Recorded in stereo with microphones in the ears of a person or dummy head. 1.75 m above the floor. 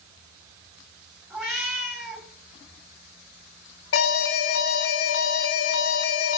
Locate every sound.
1.3 s a cat meowing: centre (ahead or behind), 2.5 m
3.9 s an alarm: 70° left (ahead or behind), 1.2 m